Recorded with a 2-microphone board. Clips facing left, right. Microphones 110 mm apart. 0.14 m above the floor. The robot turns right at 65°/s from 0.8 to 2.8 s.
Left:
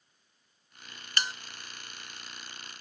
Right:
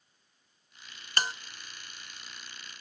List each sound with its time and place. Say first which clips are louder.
1.2 s a bell: right 2 dB; 40° right (ahead or behind), 0.5 m; by 1.3 s 35° right (ahead or behind), 0.5 m